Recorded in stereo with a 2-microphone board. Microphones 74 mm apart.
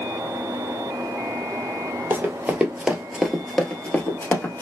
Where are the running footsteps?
30° right (ahead or behind), 1.2 m; by 4.6 s 30° left (ahead or behind), 1.2 m.